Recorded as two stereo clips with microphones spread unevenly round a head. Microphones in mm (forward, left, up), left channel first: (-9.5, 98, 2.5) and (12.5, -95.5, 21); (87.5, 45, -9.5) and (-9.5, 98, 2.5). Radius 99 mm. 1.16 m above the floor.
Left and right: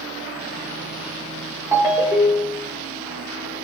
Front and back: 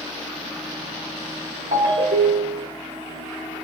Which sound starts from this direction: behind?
A ringtone, at 1.7 s.